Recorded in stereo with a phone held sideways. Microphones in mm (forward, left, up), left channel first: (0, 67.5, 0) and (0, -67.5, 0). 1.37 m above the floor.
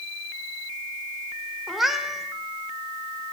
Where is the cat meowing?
Centre (ahead or behind), 1.4 m.